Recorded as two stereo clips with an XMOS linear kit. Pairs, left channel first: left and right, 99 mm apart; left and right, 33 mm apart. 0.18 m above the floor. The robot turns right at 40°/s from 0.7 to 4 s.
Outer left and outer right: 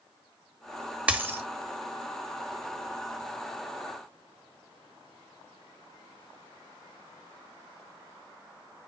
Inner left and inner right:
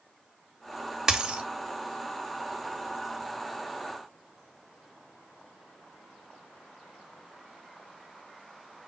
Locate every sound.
1.1 s a dropped coin: 15° right (ahead or behind), 0.5 m; by 1.4 s 30° right (ahead or behind), 0.5 m